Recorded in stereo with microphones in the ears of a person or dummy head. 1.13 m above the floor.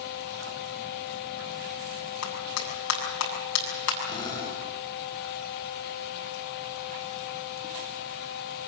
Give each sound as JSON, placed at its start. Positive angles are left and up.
{"t": 2.2, "sound": "a clap", "side_deg": 75, "distance_m": 7.5}
{"t": 4.0, "sound": "a drill", "side_deg": 20, "distance_m": 6.5}